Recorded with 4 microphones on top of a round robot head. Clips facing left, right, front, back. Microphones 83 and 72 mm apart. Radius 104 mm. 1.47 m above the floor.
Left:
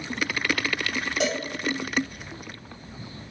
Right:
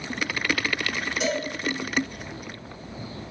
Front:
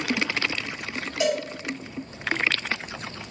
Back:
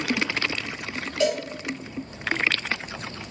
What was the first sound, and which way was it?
A cowbell, 80° left.